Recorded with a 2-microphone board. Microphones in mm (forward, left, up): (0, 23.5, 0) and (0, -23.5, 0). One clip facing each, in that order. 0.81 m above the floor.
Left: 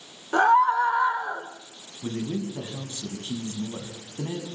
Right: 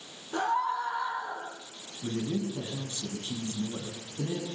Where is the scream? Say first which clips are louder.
Left 10 dB; 75° left (ahead or behind), 3.5 m; by 1.5 s 55° left (ahead or behind), 3.5 m.